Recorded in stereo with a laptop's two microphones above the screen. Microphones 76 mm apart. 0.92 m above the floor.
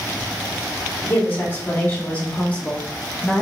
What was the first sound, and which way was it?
A woman speaking, 25° left (ahead or behind).